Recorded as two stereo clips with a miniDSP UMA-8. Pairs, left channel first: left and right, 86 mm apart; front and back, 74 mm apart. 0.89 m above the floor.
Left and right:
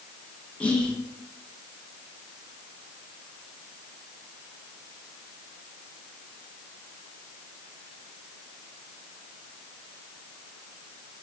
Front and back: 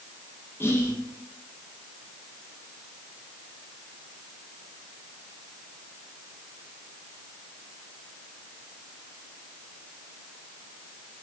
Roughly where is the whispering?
Ahead left.